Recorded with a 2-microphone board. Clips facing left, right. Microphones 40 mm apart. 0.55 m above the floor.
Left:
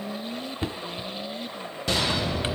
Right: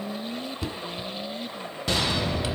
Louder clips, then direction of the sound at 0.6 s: Left 1 dB; 40° left (ahead or behind).